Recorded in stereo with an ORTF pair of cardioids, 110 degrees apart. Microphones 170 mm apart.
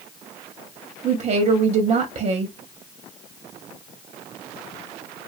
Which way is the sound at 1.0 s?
40° right.